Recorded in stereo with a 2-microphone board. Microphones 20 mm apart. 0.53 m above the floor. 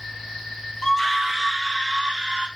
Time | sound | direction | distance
0.8 | a scream | 25° left (ahead or behind) | 0.9 m